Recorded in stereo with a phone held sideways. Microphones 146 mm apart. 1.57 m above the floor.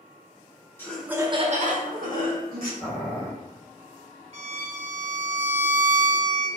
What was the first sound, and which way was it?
Laughter, 15° left (ahead or behind).